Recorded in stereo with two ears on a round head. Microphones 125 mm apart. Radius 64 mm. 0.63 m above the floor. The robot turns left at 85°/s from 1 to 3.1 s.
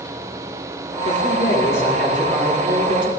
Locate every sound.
1.1 s a man speaking: 85° left, 2.5 m; by 3.1 s 90° right, 2.5 m